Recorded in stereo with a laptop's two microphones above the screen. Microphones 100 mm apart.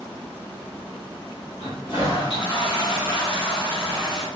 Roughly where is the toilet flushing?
Left.